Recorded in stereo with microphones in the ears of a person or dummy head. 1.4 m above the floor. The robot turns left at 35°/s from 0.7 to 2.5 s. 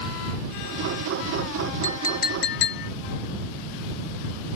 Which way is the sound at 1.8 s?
30° left (ahead or behind).